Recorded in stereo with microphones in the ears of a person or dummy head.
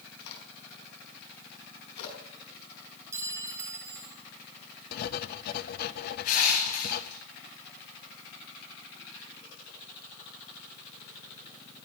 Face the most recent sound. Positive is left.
turn(degrees=60)  # may be behind; listen again after turning